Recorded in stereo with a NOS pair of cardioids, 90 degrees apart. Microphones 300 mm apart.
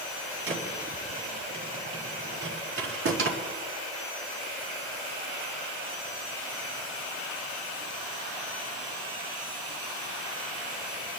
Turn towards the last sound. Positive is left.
turn(degrees=-50)